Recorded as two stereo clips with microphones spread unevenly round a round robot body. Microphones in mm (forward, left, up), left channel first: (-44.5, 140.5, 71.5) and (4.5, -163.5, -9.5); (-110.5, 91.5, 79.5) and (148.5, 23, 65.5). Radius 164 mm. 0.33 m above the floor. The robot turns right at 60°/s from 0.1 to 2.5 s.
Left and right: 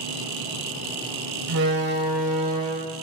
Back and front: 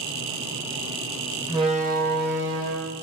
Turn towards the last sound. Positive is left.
turn(degrees=-25)